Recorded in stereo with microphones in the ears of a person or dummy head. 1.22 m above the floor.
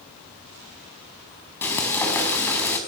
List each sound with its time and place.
1.6 s frying: 10° left (ahead or behind), 4 m